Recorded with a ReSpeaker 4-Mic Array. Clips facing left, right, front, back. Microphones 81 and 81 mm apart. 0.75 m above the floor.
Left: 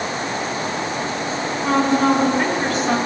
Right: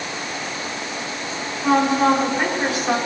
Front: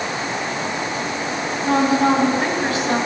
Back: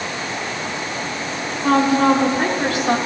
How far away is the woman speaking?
About 4 m.